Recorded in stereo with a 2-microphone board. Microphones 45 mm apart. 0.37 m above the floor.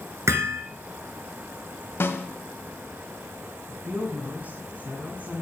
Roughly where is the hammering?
Right.